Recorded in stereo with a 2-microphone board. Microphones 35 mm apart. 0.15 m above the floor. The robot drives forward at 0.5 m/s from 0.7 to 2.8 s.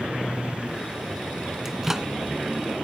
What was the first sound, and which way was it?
A microwave, 10° right (ahead or behind).